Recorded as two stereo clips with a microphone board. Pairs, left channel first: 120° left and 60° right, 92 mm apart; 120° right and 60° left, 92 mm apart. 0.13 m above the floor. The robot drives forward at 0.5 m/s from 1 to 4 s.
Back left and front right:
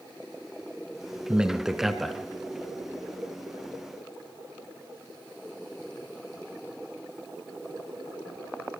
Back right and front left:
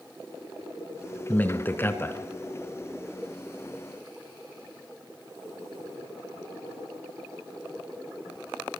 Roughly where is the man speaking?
Right.